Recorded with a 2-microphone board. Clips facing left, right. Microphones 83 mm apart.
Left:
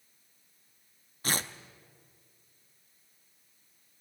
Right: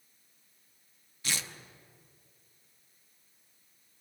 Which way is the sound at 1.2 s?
45° left (ahead or behind).